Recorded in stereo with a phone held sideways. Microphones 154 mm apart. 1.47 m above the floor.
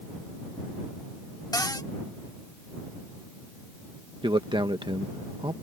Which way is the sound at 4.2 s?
30° right (ahead or behind).